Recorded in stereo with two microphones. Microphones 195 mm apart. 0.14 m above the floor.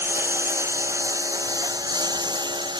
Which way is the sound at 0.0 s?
10° right (ahead or behind).